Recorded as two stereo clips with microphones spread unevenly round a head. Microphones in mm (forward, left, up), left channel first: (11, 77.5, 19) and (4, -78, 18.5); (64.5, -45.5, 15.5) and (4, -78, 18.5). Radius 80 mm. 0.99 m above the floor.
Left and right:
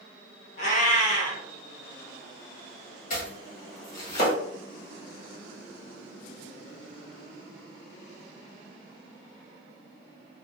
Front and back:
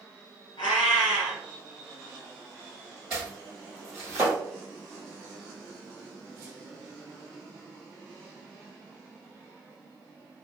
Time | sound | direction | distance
0.6 | a cat meowing | 60° left | 1.5 m
3.1 | chopping | 125° left | 1.4 m